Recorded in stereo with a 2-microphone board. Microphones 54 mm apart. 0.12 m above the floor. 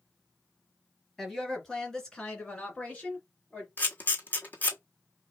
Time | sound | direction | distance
1.2 | a woman speaking | centre (ahead or behind) | 2.5 m
3.8 | a camera shutter | 35° left (ahead or behind) | 1.6 m